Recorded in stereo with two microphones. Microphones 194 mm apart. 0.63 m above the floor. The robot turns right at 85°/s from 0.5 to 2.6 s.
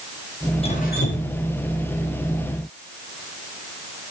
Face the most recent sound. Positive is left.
turn(degrees=-165)